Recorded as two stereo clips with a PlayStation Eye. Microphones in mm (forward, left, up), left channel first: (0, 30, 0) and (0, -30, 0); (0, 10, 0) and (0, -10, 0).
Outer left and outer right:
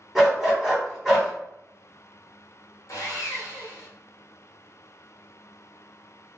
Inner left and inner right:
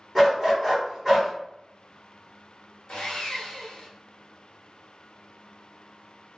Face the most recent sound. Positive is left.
turn(degrees=65)  # may be behind; listen again after turning